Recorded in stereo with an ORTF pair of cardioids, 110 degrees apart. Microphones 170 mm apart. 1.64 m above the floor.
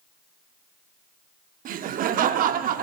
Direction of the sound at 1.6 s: 55° right.